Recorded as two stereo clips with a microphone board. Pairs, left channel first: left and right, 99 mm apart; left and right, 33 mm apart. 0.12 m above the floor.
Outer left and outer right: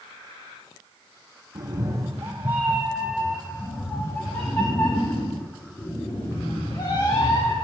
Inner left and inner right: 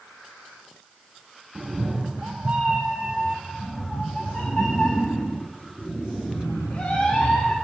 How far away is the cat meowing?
About 1.1 m.